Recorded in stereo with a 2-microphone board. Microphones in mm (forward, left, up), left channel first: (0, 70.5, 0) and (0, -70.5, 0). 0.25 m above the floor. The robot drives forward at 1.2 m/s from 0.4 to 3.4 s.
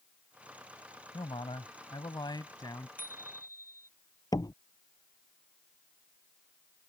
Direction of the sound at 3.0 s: 80° left.